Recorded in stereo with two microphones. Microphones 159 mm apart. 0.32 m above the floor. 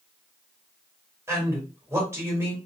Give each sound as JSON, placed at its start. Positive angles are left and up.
{"t": 1.3, "sound": "a man speaking", "side_deg": -15, "distance_m": 1.4}